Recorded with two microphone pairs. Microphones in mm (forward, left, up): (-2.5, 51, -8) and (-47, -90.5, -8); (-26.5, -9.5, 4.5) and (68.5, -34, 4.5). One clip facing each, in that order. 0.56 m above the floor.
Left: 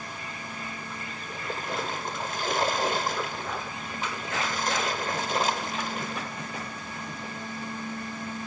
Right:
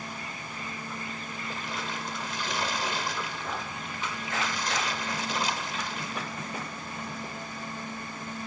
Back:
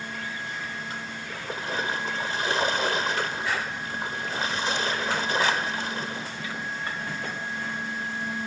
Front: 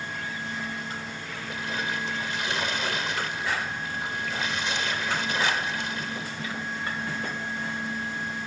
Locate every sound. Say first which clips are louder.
1.3 s a splash: left 7 dB, back 3 dB; 110° left, 1.1 m